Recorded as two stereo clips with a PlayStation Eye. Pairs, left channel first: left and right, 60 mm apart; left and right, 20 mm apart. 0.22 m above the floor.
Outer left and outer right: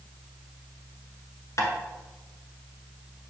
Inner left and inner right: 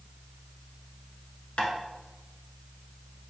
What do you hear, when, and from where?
1.6 s tapping: 60° left (ahead or behind), 0.9 m